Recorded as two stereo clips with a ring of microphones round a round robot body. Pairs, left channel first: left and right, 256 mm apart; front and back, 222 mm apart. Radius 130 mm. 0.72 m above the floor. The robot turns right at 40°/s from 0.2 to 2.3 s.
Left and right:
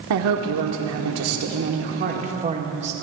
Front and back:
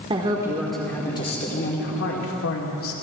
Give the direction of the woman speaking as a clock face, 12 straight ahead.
4 o'clock.